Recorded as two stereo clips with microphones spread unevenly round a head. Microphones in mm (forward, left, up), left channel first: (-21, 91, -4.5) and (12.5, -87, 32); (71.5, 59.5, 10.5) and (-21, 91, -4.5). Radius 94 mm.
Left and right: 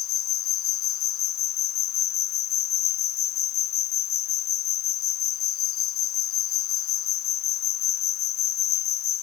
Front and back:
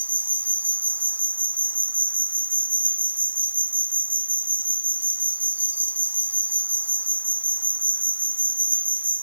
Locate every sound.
0.0 s an insect: 90° left